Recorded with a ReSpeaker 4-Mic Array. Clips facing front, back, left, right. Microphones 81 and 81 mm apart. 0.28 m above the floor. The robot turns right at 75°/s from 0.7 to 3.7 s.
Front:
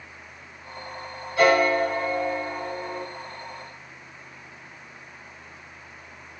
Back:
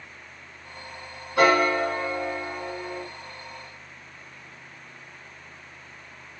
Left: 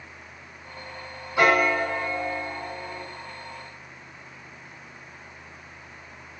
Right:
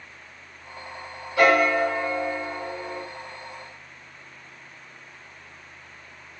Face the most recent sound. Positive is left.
turn(degrees=-30)